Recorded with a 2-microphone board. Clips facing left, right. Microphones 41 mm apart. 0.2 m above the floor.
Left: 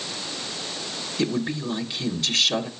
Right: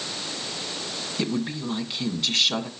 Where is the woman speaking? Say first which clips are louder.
Left 2 dB; 10° right (ahead or behind), 1.8 m.